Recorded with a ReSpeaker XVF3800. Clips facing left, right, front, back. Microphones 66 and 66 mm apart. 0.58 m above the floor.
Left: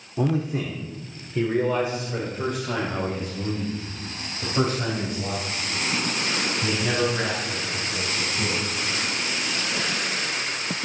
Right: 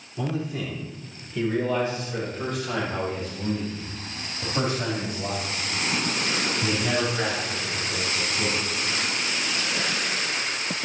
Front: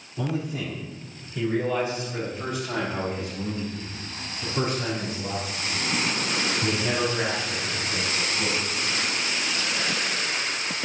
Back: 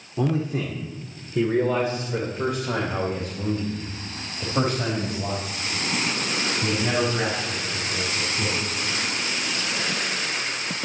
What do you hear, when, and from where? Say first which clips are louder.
0.2 s a man speaking: left 5 dB, back 5 dB; 140° left, 1.8 m; by 8.6 s 170° right, 6 m